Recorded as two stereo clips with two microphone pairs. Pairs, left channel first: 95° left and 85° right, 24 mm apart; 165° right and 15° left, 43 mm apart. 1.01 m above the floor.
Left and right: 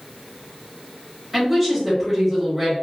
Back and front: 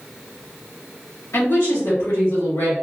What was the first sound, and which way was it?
A woman speaking, 160° right.